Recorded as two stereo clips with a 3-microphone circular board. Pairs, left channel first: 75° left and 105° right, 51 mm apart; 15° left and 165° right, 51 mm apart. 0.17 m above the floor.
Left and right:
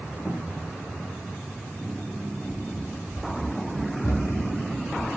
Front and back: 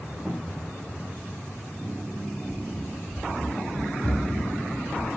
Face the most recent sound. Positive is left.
turn(degrees=70)